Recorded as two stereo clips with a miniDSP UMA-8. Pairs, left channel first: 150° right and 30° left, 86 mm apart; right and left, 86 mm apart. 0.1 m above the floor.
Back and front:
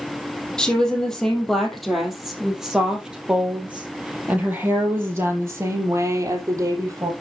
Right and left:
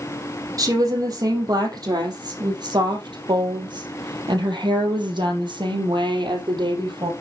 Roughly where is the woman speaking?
Behind left.